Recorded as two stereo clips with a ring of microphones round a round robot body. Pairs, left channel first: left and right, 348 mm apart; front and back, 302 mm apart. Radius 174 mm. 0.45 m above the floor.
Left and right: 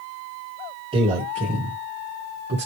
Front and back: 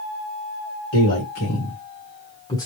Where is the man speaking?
20° right, 1.9 m; by 2.7 s 75° right, 1.4 m.